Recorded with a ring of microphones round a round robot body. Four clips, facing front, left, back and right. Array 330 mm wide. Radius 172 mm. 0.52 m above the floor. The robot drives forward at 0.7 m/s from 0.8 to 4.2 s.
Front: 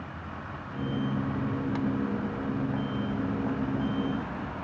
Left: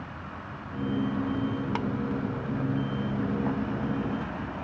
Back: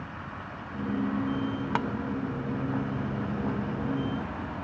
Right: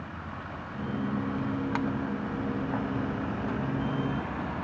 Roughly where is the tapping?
Behind.